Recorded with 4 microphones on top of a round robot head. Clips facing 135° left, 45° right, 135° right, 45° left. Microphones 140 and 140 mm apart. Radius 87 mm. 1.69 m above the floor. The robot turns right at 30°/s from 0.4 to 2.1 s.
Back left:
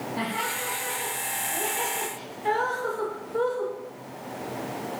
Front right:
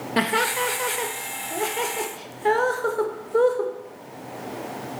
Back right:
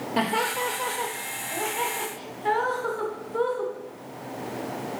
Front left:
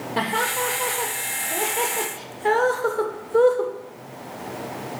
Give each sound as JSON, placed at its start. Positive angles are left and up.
{"t": 0.2, "sound": "laughter", "azimuth_deg": -55, "distance_m": 0.7}